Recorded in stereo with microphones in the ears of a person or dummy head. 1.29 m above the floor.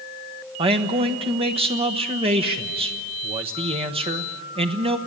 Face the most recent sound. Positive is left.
turn(degrees=-30)  # may be behind; listen again after turning